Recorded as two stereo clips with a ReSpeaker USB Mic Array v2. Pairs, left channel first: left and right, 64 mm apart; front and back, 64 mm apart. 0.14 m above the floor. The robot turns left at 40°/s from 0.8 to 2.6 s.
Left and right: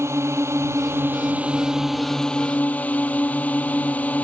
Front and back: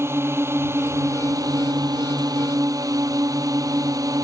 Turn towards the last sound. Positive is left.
turn(degrees=155)